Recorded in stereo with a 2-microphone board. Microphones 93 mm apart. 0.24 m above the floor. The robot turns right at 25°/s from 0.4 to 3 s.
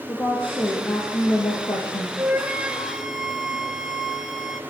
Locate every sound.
0.1 s a woman speaking: 20° left, 7 m; by 2.1 s 65° left, 7 m
2.2 s a flute: 25° right (ahead or behind), 2.5 m; by 4.6 s 5° right (ahead or behind), 2.5 m